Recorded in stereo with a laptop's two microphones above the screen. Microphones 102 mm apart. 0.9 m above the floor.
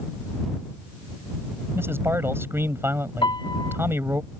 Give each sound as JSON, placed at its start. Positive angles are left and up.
{"t": 1.8, "sound": "a man speaking", "side_deg": -25}
{"t": 3.2, "sound": "a piano", "side_deg": 60}